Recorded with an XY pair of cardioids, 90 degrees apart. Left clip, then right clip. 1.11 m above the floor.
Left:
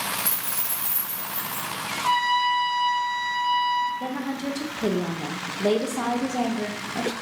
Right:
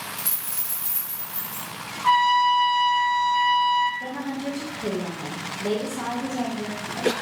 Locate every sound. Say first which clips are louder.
0.2 s a dropped coin: left 4 dB; 5° left, 2 m
2.0 s a trumpet: right 4 dB; 10° right, 1.0 m
4.0 s a woman speaking: left 1 dB; 55° left, 0.5 m